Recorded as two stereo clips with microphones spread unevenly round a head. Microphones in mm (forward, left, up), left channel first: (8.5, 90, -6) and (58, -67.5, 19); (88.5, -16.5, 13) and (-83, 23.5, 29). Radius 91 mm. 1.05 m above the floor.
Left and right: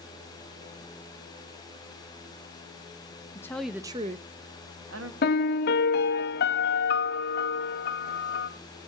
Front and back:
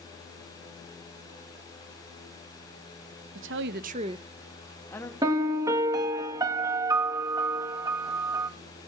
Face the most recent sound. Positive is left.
turn(degrees=95)